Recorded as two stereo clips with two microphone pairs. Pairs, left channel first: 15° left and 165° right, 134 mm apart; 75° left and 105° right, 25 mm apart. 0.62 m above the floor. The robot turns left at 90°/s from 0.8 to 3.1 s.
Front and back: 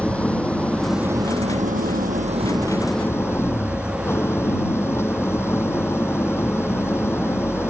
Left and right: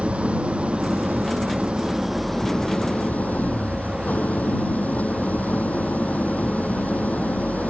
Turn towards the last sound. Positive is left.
turn(degrees=85)